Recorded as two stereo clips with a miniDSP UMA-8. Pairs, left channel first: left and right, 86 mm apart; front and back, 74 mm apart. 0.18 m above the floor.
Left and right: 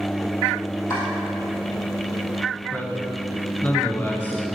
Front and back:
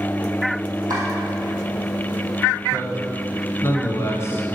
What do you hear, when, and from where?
0.9 s chopping: 145° left, 3 m
2.7 s a man speaking: 30° left, 1.5 m